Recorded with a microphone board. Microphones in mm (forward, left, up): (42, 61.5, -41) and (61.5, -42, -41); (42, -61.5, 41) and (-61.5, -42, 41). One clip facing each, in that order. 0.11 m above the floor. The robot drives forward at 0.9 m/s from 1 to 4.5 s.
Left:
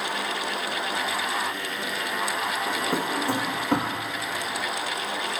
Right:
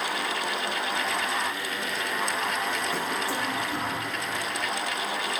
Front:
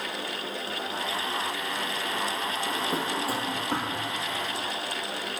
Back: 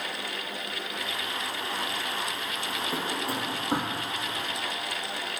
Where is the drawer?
55° left, 1.6 m; by 4.0 s 100° left, 1.3 m.